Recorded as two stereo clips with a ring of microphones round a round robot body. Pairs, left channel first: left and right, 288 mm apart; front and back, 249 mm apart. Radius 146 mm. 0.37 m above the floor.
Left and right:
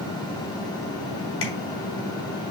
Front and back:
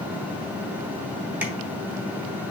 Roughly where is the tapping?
Left.